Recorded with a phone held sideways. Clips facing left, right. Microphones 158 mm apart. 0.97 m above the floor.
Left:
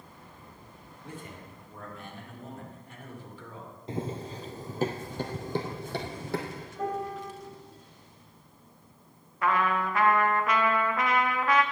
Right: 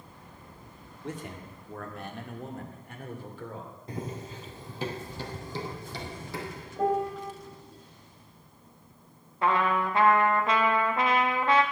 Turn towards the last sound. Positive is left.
turn(degrees=-25)  # may be behind; listen again after turning